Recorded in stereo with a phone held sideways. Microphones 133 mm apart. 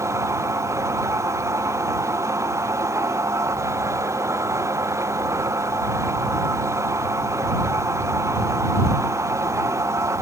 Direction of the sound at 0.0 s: 20° right (ahead or behind).